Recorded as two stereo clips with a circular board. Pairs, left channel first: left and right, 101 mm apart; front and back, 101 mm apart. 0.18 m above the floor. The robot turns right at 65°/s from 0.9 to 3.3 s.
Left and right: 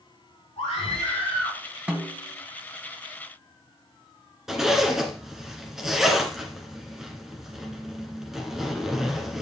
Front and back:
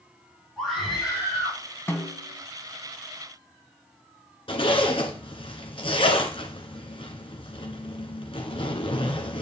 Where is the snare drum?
35° right, 1.3 m; by 2.4 s straight ahead, 1.3 m.